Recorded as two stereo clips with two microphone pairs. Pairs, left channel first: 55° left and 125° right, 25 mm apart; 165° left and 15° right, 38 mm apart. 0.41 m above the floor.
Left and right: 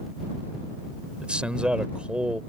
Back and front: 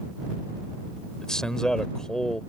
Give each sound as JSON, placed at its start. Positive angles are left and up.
{"t": 1.2, "sound": "a man speaking", "azimuth_deg": -125}